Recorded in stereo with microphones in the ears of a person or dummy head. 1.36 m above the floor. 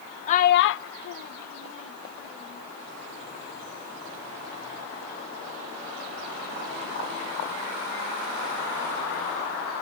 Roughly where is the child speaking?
Left.